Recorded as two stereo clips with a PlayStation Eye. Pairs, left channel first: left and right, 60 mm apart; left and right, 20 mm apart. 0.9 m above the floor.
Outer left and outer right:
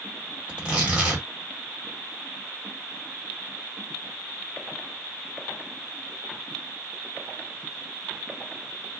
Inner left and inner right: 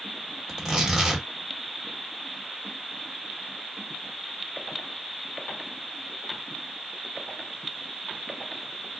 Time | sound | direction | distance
0.5 | tearing paper | 20° right (ahead or behind) | 1.2 m